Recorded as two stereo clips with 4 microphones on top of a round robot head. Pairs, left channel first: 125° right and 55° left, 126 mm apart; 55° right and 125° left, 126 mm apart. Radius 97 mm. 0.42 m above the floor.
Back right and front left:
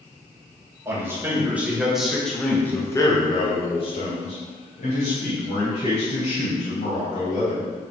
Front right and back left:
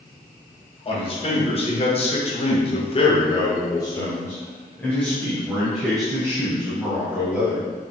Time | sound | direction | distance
0.8 | a man speaking | 15° right | 2.5 m